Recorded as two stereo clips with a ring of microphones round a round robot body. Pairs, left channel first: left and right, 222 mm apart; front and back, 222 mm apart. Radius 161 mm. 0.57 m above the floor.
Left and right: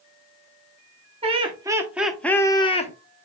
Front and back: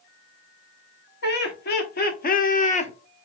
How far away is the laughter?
About 1.3 m.